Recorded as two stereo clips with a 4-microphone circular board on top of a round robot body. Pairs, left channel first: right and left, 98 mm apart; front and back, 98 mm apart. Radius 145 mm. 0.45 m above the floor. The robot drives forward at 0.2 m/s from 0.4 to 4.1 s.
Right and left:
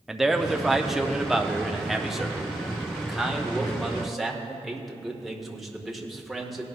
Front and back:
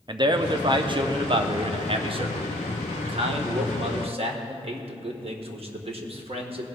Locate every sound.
0.1 s a man speaking: 175° left, 0.9 m; by 6.7 s straight behind, 1.5 m